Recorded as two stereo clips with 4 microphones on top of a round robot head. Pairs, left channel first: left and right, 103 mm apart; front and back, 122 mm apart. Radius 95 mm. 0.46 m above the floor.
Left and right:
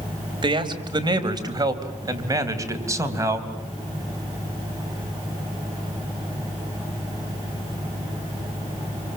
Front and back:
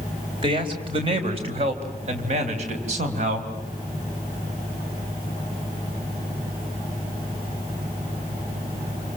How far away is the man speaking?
About 3.5 m.